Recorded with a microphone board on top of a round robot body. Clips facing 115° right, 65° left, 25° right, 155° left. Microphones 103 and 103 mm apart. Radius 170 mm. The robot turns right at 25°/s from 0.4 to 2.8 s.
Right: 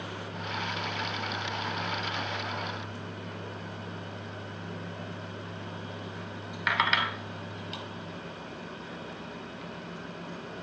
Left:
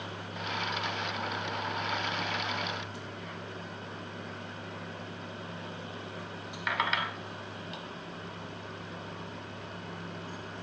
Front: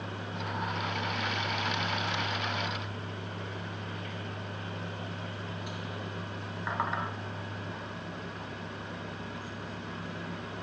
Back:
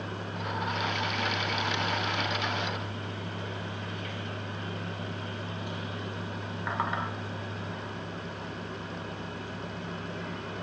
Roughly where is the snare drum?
I don't hear a snare drum.